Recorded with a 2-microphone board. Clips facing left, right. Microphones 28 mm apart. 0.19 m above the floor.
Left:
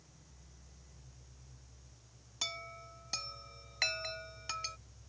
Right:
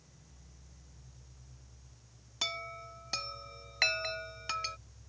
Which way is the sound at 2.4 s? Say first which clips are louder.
Right 4 dB; 20° right (ahead or behind).